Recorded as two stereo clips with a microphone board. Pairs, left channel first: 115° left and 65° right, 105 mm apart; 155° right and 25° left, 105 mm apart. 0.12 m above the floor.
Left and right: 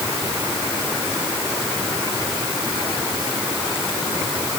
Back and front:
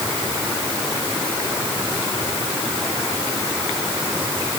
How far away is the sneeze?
No sneeze in this recording.